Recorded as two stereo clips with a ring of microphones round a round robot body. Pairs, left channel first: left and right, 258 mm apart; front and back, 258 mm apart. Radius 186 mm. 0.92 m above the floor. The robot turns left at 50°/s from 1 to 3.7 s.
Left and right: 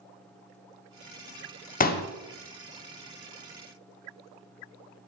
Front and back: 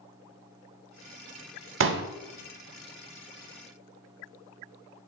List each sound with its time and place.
1.8 s a pop: 145° left, 0.6 m; by 2.1 s 135° left, 0.6 m